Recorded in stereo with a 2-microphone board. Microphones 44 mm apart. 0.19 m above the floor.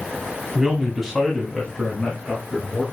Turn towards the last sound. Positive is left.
turn(degrees=15)  # may be behind; listen again after turning